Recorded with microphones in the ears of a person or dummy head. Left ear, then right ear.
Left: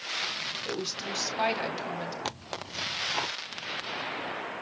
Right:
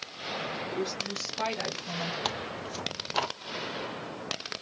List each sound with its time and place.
0.7 s a woman speaking: 70° left (ahead or behind), 3 m
2.2 s tearing paper: 15° right (ahead or behind), 0.6 m